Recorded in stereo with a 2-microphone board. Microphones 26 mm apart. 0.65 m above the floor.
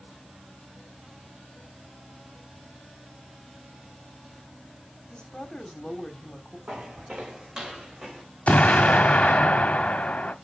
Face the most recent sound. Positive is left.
turn(degrees=60)  # may be behind; listen again after turning